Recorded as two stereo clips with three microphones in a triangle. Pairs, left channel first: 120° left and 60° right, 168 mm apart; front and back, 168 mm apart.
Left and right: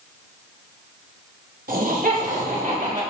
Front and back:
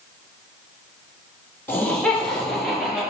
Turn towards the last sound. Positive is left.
turn(degrees=-95)